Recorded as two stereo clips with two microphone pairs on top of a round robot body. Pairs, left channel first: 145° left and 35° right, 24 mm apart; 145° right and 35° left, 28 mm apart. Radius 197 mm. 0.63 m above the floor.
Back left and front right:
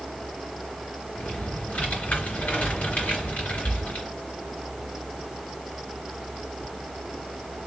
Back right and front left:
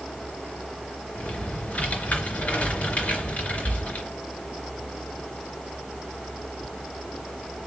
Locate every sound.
1.1 s typing on a keyboard: 170° left, 3 m